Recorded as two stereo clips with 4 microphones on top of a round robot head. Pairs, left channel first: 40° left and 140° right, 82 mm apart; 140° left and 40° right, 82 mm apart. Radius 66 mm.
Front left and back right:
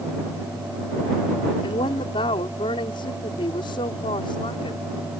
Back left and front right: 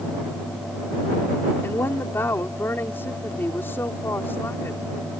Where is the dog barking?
I don't hear a dog barking.